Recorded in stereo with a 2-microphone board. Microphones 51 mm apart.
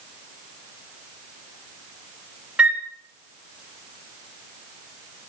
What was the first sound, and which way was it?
A flute, 25° right (ahead or behind).